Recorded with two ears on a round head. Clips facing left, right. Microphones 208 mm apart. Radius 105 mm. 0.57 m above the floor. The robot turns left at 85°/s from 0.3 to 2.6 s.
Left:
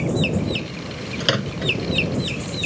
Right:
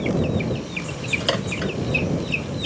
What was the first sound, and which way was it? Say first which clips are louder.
A microwave: left 1 dB; 30° left (ahead or behind).